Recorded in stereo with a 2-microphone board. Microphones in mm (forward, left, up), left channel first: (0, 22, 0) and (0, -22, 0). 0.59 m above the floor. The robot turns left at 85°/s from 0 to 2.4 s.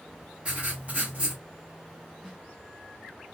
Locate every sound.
0.5 s writing: 50° right, 1.3 m; by 1.4 s 135° right, 1.3 m
2.2 s a snare drum: 5° left (ahead or behind), 1.8 m; by 2.4 s 5° right (ahead or behind), 1.8 m